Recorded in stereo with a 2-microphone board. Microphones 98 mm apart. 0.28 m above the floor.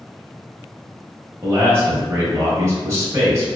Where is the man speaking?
30° right (ahead or behind), 1.2 m.